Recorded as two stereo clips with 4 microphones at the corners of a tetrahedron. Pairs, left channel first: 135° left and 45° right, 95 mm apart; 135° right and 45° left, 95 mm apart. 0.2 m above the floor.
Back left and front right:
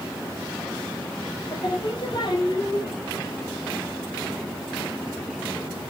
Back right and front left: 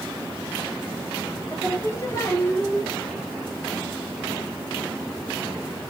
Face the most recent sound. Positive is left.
turn(degrees=165)